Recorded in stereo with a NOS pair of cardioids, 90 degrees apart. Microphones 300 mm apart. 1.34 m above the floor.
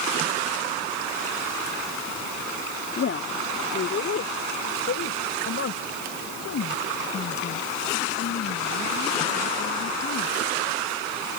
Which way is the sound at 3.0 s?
45° left.